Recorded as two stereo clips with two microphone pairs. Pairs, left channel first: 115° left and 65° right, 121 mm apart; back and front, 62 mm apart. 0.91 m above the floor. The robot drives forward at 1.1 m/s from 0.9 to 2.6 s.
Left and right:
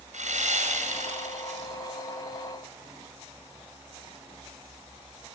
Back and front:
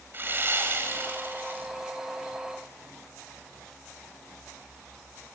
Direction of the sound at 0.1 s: 55° right.